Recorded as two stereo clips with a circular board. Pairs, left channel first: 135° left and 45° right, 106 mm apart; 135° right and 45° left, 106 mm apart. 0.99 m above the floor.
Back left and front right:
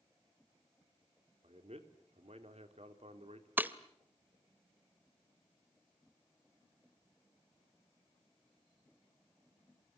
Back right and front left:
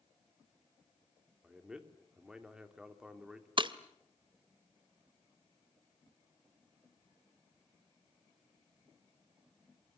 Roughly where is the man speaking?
Ahead right.